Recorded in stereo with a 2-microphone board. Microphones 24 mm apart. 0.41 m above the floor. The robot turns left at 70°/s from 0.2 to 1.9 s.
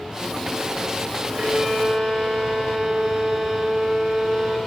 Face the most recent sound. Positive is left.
turn(degrees=-85)